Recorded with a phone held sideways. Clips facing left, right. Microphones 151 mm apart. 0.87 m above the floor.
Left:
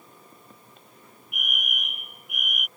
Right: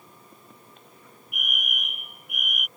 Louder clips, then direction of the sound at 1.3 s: Even; centre (ahead or behind).